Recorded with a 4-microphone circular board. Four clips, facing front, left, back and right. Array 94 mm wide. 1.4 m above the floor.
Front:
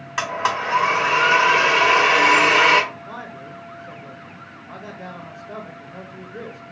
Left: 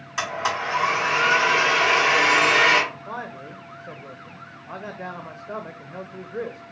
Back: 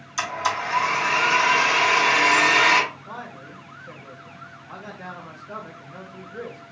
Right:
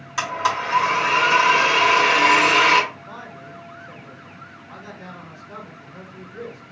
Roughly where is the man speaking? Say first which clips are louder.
Left 4 dB, front 3 dB; left.